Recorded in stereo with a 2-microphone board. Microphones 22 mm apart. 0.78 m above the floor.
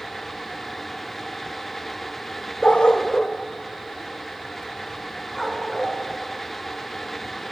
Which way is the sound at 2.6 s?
70° left (ahead or behind).